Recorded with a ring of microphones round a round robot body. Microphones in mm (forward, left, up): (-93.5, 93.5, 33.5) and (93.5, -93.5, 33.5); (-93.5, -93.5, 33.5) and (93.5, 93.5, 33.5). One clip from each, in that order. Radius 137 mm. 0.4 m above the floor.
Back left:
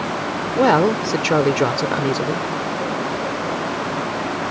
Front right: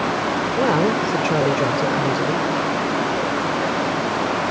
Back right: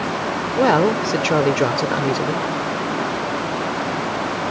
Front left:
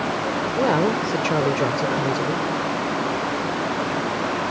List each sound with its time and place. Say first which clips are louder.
0.6 s a woman speaking: back left 5 dB, back right 5 dB; 170° left